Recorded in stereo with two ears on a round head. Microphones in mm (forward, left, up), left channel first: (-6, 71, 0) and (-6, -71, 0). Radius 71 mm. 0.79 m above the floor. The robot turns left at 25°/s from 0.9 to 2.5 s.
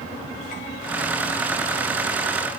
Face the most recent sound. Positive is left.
No sound to turn to.